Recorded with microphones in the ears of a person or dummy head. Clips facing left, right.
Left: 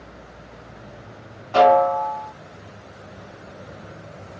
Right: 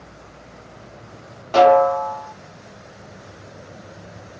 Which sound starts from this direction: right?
A snare drum, at 1.5 s.